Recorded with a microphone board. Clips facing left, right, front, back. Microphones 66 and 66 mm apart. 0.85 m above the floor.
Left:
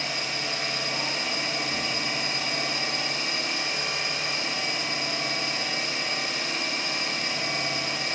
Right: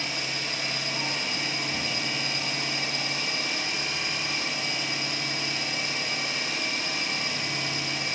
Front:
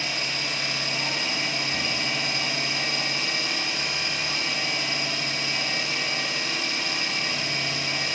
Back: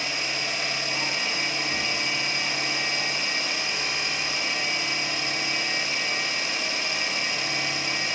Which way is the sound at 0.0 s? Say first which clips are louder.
Left 1 dB, even; 115° left.